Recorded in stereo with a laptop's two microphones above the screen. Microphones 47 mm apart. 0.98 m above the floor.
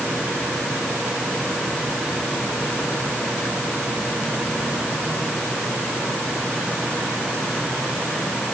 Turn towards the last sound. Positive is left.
No sound to turn to.